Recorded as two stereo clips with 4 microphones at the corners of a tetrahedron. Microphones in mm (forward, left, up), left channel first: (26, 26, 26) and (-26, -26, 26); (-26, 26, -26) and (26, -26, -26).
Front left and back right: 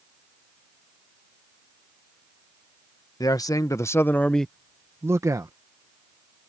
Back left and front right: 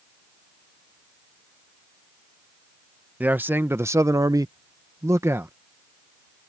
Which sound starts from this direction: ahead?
A man speaking, at 3.2 s.